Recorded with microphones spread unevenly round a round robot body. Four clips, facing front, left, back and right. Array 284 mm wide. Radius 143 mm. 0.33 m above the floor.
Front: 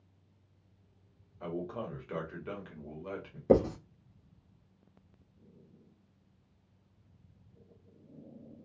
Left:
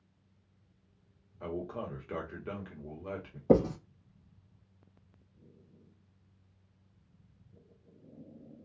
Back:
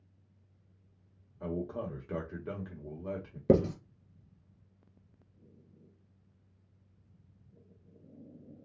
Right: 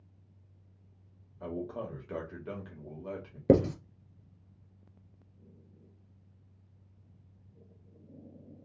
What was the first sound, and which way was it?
A man speaking, straight behind.